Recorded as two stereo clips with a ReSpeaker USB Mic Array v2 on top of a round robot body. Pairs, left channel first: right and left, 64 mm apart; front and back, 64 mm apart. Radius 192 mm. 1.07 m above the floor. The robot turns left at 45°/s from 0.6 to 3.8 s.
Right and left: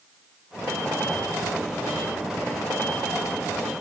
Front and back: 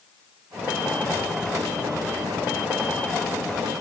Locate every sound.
Only background noise.